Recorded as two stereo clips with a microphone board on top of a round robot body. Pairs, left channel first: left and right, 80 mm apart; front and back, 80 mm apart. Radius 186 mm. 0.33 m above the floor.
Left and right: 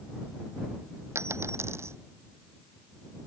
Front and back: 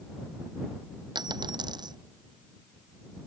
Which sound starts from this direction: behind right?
A dropped coin, at 1.1 s.